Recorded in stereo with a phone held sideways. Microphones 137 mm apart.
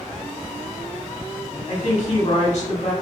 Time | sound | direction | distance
1.7 | a woman speaking | 50° left (ahead or behind) | 1.1 m